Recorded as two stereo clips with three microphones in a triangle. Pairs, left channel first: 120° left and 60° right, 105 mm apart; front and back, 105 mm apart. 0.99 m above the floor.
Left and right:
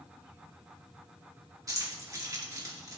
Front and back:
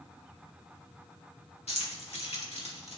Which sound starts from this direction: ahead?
Keys jangling, at 1.7 s.